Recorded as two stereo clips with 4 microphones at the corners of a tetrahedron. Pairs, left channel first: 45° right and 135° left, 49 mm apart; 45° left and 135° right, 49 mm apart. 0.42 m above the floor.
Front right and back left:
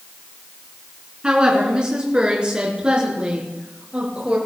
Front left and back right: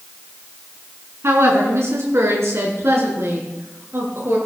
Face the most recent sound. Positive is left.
turn(degrees=-160)